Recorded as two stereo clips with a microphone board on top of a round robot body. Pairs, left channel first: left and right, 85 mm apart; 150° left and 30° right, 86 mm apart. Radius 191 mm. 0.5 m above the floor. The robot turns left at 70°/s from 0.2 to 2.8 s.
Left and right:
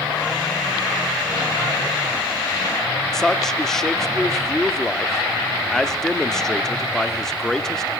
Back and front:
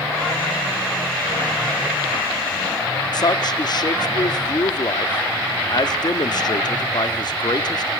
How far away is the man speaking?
About 1.6 m.